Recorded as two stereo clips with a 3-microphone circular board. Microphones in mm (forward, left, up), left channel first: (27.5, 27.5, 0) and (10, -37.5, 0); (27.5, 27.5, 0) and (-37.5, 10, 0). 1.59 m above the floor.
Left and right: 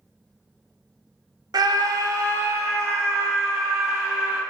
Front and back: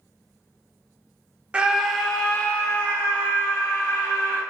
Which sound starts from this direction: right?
A scream, at 1.5 s.